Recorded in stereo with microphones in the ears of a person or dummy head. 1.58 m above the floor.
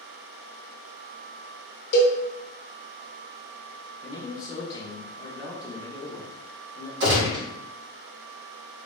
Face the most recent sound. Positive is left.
turn(degrees=-65)  # may be behind; listen again after turning